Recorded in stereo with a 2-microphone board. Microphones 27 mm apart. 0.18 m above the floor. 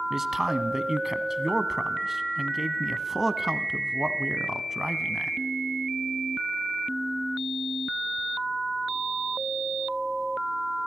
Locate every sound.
0.1 s a man speaking: 15° right (ahead or behind), 1.5 m